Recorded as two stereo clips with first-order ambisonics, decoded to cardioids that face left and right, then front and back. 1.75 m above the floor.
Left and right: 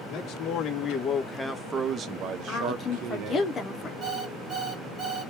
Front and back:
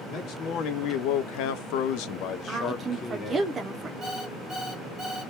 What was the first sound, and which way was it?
A man speaking, 45° left.